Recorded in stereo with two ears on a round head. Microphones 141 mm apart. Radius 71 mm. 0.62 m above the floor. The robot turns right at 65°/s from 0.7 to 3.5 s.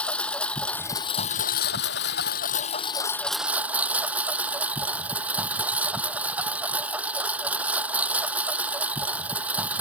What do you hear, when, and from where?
0.0 s a lawn mower: 10° left; by 9.8 s 170° right